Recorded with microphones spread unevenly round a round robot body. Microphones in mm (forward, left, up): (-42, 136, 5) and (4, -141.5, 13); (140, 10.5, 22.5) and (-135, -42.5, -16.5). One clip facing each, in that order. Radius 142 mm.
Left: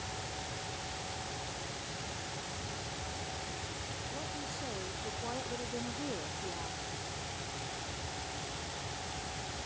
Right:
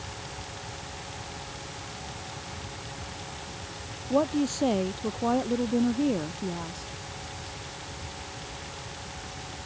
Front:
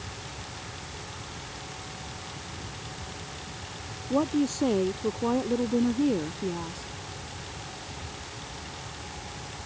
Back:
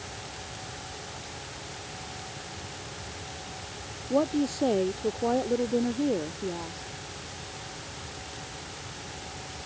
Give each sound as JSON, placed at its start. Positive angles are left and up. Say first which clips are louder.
{"t": 4.1, "sound": "a woman speaking", "louder": "right 22 dB, front 1 dB", "azimuth_deg": -70}